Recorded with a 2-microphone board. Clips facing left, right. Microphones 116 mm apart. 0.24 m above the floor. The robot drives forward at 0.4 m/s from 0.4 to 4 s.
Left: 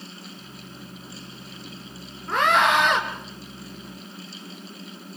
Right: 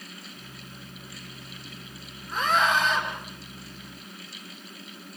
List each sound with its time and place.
2.3 s a scream: 70° left (ahead or behind), 2.5 m; by 3.0 s 65° left (ahead or behind), 2.5 m